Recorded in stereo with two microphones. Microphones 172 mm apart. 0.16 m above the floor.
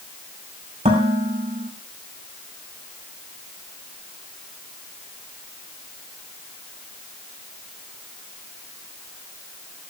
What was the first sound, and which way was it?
Dishes clattering, 40° right (ahead or behind).